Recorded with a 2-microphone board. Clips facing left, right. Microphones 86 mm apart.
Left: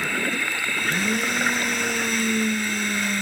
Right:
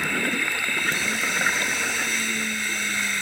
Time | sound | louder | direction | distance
0.8 | a blender | left 5 dB | 65° left (ahead or behind) | 0.6 m